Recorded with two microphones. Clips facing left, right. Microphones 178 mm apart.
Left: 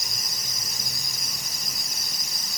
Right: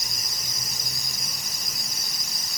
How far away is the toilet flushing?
No toilet flushing in this recording.